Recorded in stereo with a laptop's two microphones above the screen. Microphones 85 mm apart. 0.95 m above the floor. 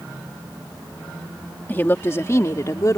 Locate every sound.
1.7 s a woman speaking: 25° left (ahead or behind); by 3.0 s 45° left (ahead or behind)